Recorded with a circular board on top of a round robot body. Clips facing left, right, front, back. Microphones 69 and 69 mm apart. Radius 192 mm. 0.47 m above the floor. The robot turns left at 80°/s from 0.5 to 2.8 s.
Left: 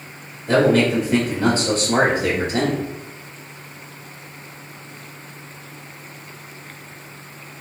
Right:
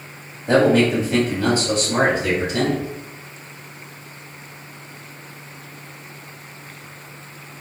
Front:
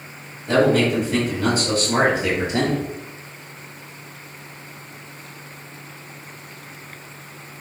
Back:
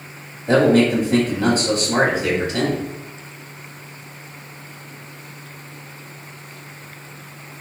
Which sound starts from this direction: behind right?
A man speaking, at 0.5 s.